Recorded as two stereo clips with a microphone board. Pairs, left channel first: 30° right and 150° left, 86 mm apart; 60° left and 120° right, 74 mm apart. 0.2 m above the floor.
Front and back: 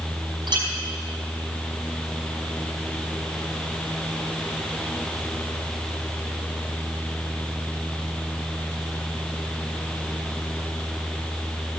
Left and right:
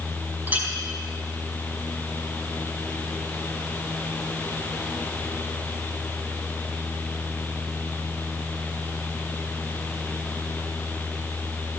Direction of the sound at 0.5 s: 175° left.